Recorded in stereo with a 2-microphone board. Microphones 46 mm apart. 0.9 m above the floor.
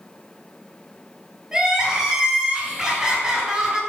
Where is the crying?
15° right (ahead or behind), 2.5 m.